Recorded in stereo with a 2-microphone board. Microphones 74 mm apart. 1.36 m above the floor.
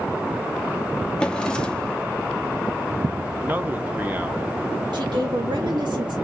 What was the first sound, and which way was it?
A drawer, 10° left (ahead or behind).